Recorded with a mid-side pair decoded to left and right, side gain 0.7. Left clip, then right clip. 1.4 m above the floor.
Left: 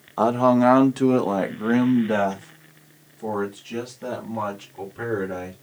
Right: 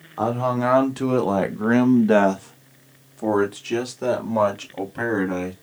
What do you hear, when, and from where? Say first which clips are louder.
0.2 s a man speaking: left 4 dB; 25° left, 1.2 m; by 5.5 s 60° right, 3 m